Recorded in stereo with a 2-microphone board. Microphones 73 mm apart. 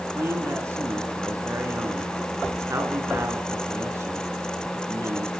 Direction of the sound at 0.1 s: 40° right (ahead or behind).